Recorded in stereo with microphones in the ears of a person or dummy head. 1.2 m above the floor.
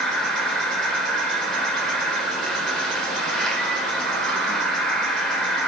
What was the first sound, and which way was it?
An insect, centre (ahead or behind).